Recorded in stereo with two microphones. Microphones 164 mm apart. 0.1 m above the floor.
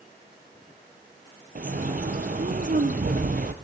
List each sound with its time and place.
1.6 s a bird: 55° right (ahead or behind), 0.8 m